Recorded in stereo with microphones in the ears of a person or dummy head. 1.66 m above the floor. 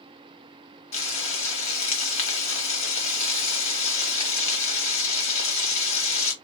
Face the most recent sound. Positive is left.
turn(degrees=35)  # may be behind; listen again after turning